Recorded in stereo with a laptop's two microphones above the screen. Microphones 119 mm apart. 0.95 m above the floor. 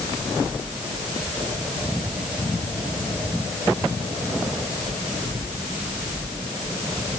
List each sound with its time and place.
Only background noise.